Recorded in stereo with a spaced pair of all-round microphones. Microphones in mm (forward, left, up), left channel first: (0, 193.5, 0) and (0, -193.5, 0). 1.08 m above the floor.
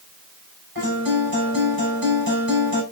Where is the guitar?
65° right (ahead or behind), 6.5 m.